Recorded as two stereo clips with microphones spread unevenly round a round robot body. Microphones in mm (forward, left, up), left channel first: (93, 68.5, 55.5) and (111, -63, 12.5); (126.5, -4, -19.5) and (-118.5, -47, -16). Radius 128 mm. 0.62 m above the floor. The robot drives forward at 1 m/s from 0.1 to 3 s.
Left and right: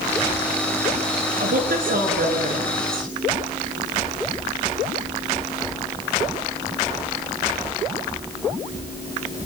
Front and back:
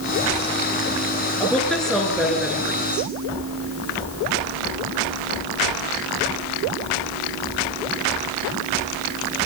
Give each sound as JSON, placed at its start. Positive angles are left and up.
{"t": 1.4, "sound": "a woman speaking", "azimuth_deg": -75, "distance_m": 9.5}